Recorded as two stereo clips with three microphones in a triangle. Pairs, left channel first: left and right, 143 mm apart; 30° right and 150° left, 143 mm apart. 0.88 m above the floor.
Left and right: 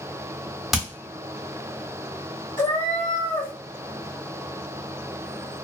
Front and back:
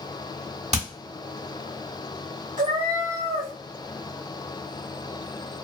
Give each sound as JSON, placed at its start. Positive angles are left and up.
{"t": 0.7, "sound": "hammering", "azimuth_deg": 180, "distance_m": 1.0}
{"t": 2.6, "sound": "a cat meowing", "azimuth_deg": 120, "distance_m": 1.0}